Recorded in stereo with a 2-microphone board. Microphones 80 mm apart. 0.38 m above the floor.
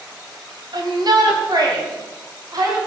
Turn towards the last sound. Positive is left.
turn(degrees=-50)  # may be behind; listen again after turning